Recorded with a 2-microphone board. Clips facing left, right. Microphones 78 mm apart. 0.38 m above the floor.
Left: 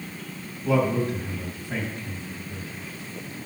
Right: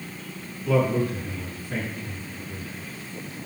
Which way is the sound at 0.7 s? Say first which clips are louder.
Even; 25° left (ahead or behind).